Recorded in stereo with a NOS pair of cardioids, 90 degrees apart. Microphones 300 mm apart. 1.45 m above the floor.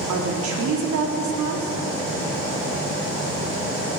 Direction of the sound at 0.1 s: 70° right.